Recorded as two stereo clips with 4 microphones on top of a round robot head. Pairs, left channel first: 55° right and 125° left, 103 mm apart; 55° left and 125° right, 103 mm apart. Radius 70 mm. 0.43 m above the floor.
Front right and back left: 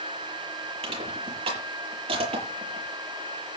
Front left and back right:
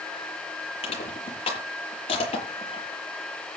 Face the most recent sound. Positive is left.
turn(degrees=90)